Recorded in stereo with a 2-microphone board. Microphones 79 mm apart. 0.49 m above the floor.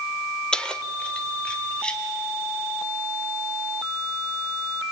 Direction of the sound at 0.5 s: 10° left (ahead or behind).